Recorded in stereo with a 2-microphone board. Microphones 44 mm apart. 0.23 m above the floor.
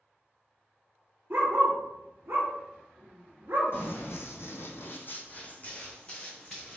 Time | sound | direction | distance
1.3 | a dog barking | 60° right (ahead or behind) | 1.2 m
3.7 | running footsteps | 60° left (ahead or behind) | 0.8 m